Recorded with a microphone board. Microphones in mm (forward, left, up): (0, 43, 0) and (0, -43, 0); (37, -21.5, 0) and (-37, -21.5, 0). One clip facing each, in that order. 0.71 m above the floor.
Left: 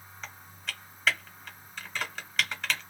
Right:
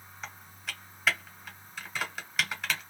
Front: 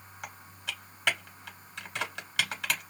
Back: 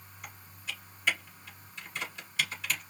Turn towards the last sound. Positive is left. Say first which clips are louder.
# even, front 3 dB
turn(degrees=-5)